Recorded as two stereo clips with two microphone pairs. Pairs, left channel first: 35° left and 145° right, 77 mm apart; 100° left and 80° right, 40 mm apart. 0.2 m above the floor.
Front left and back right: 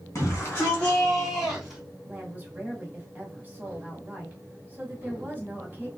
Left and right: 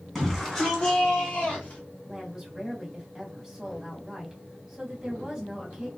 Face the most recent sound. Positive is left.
turn(degrees=-145)